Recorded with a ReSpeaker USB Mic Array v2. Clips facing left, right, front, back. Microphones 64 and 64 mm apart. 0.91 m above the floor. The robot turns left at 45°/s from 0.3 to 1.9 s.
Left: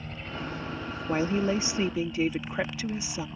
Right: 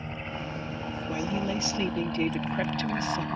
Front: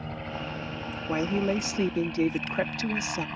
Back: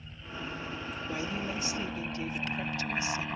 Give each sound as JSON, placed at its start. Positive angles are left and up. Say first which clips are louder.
{"t": 0.0, "sound": "a helicopter", "louder": "right 1 dB, front 7 dB", "azimuth_deg": -20}
{"t": 1.1, "sound": "a woman speaking", "louder": "left 5 dB, front 10 dB", "azimuth_deg": 50}